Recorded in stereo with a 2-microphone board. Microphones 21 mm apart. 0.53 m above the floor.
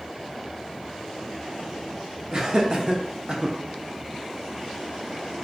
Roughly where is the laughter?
Right.